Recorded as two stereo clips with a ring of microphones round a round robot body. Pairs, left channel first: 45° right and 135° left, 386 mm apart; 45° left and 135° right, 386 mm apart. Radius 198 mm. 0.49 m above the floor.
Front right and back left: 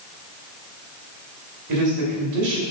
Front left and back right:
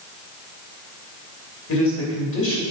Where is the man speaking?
100° left, 2.5 m.